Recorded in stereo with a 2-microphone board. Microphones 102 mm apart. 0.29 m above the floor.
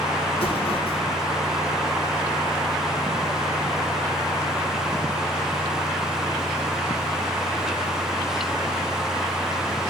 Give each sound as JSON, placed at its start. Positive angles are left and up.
{"t": 0.3, "sound": "an explosion", "side_deg": 75, "distance_m": 6.5}